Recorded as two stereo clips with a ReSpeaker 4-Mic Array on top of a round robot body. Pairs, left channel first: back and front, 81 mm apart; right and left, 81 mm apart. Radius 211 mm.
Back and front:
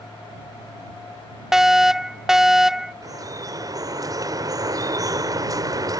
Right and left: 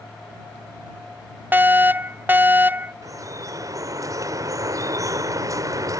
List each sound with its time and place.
1.5 s a fire alarm: 80° left
3.0 s dripping: 45° left